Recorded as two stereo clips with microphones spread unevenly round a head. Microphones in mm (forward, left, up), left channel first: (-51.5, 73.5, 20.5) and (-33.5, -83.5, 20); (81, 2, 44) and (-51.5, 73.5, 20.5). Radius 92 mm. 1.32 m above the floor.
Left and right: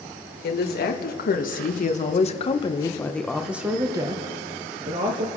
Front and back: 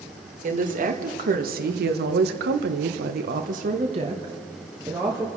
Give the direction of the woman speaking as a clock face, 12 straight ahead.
8 o'clock.